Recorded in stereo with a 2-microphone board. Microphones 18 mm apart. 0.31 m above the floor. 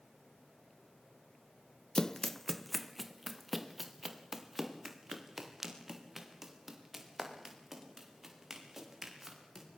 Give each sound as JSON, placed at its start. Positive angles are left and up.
{"t": 1.9, "sound": "running footsteps", "side_deg": 35, "distance_m": 0.6}